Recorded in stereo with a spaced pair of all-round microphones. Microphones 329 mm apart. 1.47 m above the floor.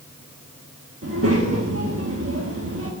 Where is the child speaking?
45° right (ahead or behind), 1.2 m.